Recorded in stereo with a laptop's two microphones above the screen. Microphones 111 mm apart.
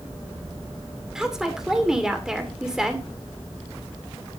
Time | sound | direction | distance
1.1 | a woman speaking | 5° right (ahead or behind) | 2.5 m